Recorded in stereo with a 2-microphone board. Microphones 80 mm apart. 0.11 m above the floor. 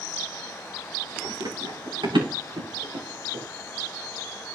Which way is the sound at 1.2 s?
70° right (ahead or behind).